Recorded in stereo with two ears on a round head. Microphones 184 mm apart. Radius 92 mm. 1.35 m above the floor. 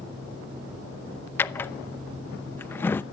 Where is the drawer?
10° left (ahead or behind), 0.7 m.